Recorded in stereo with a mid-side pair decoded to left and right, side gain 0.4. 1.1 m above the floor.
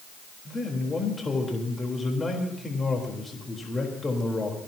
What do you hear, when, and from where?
0.5 s a man speaking: 30° left, 4 m